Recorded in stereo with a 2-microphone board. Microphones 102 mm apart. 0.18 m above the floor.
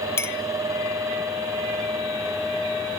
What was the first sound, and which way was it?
A clink, 25° left (ahead or behind).